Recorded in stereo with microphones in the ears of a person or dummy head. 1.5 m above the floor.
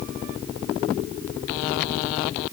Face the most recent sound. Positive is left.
No sound to turn to.